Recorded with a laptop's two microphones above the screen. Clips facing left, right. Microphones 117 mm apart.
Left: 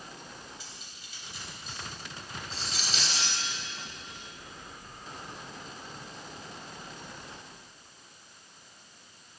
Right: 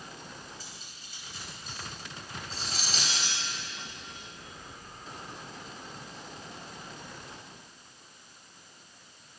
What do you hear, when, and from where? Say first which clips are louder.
0.6 s cutlery clinking: right 1 dB; 40° right (ahead or behind), 4 m